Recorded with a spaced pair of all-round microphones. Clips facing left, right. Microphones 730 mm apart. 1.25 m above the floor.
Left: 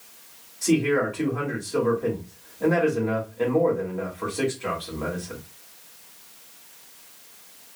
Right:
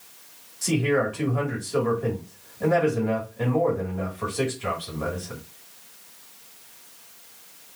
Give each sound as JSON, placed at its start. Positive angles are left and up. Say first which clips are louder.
{"t": 0.6, "sound": "a man speaking", "louder": "left 2 dB", "side_deg": -40, "distance_m": 2.0}